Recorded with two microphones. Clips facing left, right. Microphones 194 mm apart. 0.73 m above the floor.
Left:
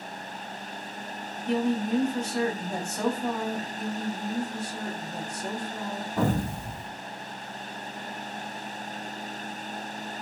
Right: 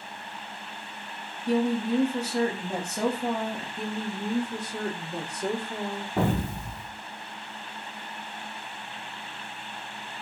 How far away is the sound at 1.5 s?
About 1.2 m.